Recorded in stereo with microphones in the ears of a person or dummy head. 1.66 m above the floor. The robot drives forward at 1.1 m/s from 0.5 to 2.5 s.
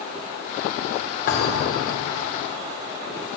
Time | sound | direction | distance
1.3 | a thud | 45° left (ahead or behind) | 1.7 m